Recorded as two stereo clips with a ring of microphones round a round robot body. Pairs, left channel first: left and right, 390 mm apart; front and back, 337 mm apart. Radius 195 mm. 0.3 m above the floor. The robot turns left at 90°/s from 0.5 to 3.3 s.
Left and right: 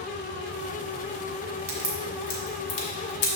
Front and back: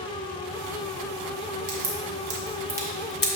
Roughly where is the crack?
Behind.